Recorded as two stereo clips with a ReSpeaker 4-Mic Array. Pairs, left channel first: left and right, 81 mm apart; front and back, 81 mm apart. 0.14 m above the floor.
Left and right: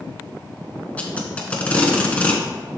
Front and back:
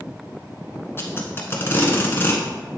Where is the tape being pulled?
35° left, 1.3 m.